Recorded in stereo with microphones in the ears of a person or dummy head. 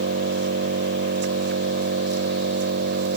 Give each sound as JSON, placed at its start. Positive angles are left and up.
{"t": 0.0, "sound": "an engine running", "side_deg": -65}